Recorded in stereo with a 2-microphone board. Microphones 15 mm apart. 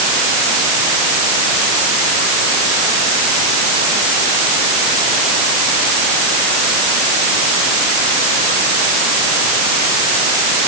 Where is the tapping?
No tapping in this recording.